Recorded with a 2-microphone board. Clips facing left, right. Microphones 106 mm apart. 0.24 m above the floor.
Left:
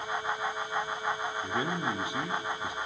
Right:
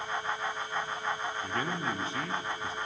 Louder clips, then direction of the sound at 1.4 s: Left 2 dB; 15° left (ahead or behind).